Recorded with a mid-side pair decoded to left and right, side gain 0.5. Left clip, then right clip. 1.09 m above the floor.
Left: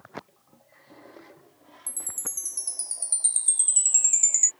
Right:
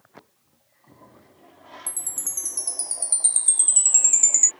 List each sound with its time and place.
1.9 s a chime: 20° right